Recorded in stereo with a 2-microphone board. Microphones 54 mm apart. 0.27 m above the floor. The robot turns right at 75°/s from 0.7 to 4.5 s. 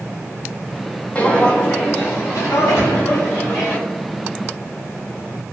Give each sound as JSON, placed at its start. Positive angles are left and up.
{"t": 1.1, "sound": "footsteps", "side_deg": 20, "distance_m": 0.5}
{"t": 2.8, "sound": "a drawer", "side_deg": 45, "distance_m": 1.4}